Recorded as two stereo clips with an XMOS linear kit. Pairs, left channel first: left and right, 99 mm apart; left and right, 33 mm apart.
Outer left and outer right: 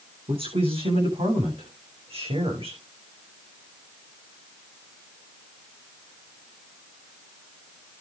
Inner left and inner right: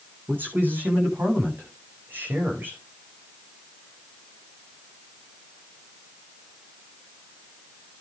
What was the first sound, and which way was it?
A man speaking, 75° right (ahead or behind).